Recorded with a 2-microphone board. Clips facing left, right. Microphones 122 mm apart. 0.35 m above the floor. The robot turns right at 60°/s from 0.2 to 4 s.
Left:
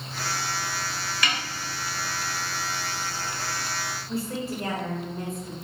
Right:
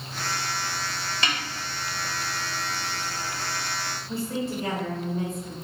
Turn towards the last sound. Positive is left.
turn(degrees=0)  # may be behind; listen again after turning